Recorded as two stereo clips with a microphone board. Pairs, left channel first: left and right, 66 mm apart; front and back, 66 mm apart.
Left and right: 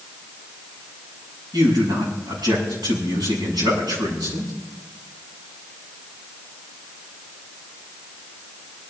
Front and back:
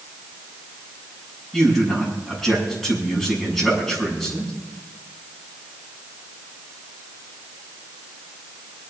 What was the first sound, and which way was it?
A man speaking, 90° right.